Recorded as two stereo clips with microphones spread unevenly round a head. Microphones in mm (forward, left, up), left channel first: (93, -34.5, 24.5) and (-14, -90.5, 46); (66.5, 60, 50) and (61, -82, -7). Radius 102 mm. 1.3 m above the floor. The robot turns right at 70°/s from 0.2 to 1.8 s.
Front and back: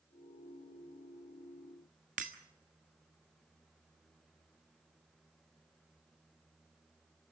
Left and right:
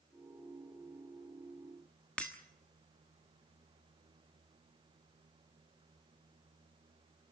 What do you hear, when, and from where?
2.2 s breaking glass: 165° left, 1.3 m